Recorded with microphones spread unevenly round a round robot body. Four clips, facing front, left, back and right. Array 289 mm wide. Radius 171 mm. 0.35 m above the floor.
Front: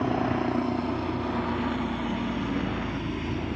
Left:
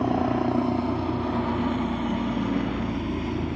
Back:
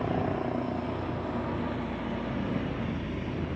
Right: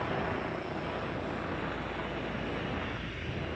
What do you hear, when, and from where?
0.0 s a helicopter: 70° left